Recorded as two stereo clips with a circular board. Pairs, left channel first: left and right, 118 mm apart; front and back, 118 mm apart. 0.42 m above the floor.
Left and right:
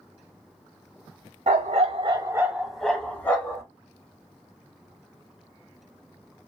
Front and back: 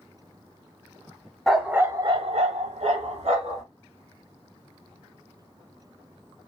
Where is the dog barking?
85° right, 0.7 m; by 3.6 s 160° left, 1.4 m.